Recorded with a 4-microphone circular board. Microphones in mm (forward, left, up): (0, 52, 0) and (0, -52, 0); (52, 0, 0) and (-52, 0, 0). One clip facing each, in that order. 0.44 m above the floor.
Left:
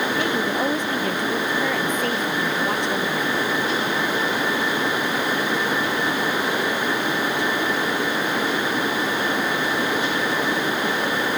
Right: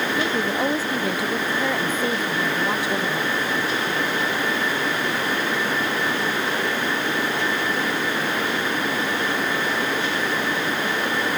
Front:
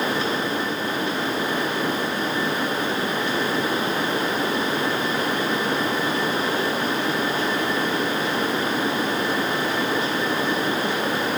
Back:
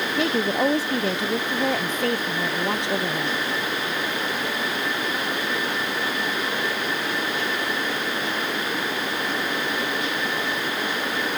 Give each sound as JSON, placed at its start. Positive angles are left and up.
{"t": 0.2, "sound": "a woman speaking", "azimuth_deg": -175}